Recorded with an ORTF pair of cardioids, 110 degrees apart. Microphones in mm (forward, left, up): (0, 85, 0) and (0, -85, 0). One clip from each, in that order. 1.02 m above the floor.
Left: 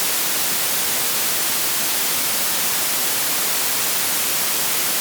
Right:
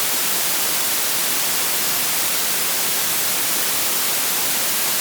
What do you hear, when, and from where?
Only background noise.